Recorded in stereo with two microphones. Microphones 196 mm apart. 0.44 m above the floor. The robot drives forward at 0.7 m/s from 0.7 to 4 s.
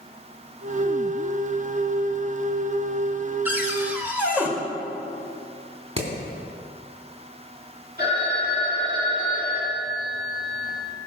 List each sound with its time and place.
3.5 s a cupboard door: 10° right (ahead or behind), 1.6 m
6.0 s hammering: 30° right (ahead or behind), 3 m
8.0 s a phone ringing: 50° right (ahead or behind), 6 m